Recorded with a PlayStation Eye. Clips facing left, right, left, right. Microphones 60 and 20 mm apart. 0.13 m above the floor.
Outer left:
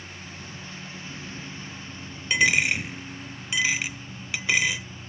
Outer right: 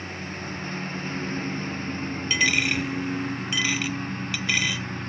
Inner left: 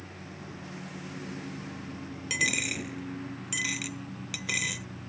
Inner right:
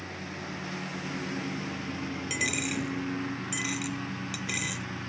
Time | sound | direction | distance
0.0 | a lawn mower | 50° right (ahead or behind) | ?
2.3 | a dropped coin | 15° left (ahead or behind) | ?